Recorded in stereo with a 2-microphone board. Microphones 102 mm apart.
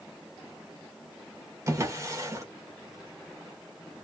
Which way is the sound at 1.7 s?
30° right (ahead or behind).